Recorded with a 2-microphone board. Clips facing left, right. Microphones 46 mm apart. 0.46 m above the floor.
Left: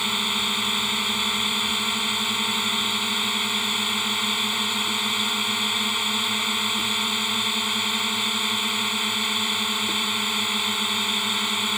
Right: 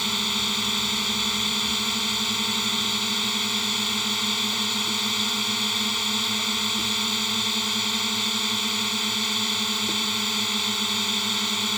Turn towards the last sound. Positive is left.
turn(degrees=15)  # may be behind; listen again after turning